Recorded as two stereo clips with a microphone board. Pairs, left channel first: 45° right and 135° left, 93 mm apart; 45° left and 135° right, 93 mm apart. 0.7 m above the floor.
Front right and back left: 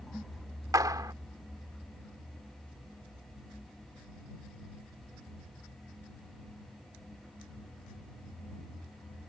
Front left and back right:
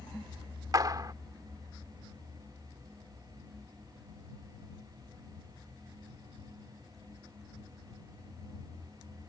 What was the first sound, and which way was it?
A clap, straight behind.